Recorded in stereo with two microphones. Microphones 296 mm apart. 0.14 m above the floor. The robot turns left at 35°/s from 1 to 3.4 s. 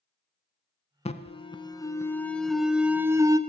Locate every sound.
1.1 s an alarm: 20° left (ahead or behind), 0.8 m; by 3.4 s 15° right (ahead or behind), 0.8 m